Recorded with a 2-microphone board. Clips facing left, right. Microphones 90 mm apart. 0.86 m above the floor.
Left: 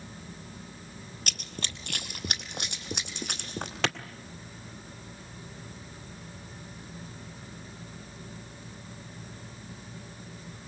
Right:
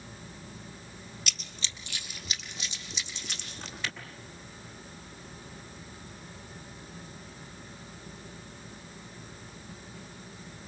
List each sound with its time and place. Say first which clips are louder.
1.3 s running footsteps: left 5 dB; 50° left (ahead or behind), 1.2 m; by 3.8 s 55° left (ahead or behind), 4 m
3.8 s a clap: left 8 dB; 75° left (ahead or behind), 1.6 m